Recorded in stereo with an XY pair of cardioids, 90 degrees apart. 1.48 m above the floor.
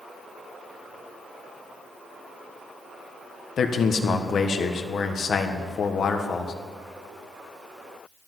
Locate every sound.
3.6 s a man speaking: 60° left, 1.3 m